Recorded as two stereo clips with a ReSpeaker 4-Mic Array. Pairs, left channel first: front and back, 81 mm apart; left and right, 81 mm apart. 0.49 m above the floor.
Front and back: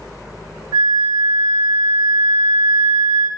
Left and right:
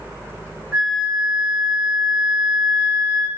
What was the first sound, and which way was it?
A flute, 160° right.